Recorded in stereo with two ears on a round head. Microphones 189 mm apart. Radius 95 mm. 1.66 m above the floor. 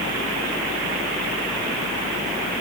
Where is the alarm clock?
No alarm clock in this recording.